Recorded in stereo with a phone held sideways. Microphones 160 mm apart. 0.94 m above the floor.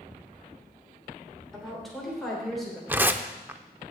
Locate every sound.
1.5 s a woman speaking: centre (ahead or behind), 3.5 m
2.9 s tearing paper: 10° right (ahead or behind), 0.5 m